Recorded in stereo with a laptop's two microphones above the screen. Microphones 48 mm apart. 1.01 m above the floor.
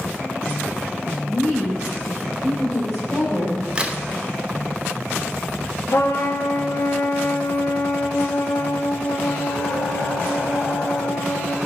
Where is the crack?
20° right (ahead or behind), 0.7 m.